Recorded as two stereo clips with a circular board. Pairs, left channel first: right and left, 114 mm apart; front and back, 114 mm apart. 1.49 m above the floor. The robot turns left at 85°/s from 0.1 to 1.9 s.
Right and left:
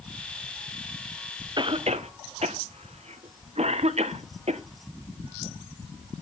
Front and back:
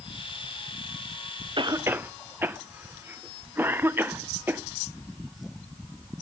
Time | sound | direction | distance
1.6 | a cough | 140° left | 0.9 m